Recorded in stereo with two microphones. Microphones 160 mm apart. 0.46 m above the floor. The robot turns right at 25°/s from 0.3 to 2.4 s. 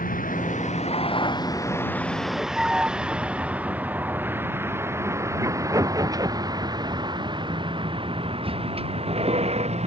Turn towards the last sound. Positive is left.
turn(degrees=-45)  # may be behind; listen again after turning